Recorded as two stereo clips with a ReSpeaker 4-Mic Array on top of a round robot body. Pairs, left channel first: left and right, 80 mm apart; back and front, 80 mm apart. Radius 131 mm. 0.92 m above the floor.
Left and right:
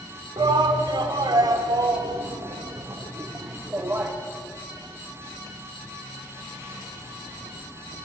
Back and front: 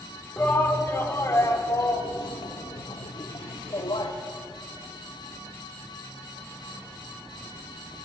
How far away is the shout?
About 3 m.